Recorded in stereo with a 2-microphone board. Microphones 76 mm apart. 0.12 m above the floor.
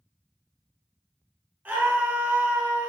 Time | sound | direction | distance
1.6 | a scream | 25° right (ahead or behind) | 1.5 m